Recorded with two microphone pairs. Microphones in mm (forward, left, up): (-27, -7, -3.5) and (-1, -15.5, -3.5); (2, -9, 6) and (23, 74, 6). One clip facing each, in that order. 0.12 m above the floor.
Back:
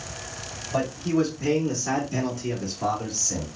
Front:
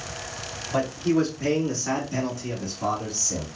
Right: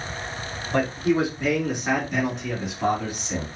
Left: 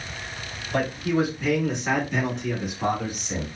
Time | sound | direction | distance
0.7 | a man speaking | 55° right | 1.7 m